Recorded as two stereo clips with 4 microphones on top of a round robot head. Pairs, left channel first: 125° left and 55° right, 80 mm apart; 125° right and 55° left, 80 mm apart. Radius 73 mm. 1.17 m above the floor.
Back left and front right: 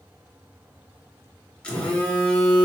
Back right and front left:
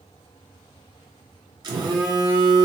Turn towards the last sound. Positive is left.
turn(degrees=55)